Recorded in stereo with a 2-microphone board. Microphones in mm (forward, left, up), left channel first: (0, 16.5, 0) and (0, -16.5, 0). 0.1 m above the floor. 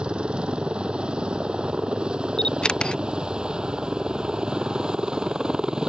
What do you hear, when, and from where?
0.0 s a helicopter: 30° right (ahead or behind); by 5.9 s 25° right (ahead or behind)
2.4 s a camera shutter: 25° left (ahead or behind)